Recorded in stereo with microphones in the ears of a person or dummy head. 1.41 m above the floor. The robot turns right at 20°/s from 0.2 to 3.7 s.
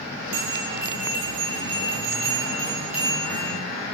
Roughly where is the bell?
Ahead right.